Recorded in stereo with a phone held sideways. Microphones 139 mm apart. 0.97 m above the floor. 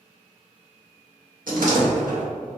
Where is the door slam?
75° right (ahead or behind), 1.2 m.